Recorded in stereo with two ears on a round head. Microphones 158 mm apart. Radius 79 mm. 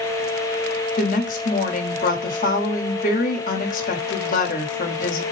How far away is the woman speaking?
About 1.2 m.